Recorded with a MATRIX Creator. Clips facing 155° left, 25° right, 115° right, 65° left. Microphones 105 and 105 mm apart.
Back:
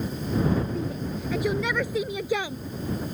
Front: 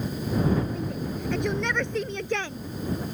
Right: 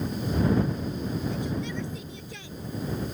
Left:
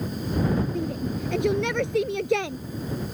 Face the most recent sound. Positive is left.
turn(degrees=80)